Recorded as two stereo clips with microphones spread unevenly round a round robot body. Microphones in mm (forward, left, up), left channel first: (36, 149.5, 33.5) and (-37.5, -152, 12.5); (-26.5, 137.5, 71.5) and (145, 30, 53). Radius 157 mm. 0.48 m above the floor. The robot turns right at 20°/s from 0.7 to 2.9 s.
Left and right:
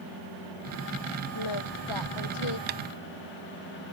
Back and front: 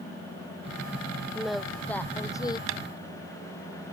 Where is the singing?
55° left; by 2.6 s 80° left.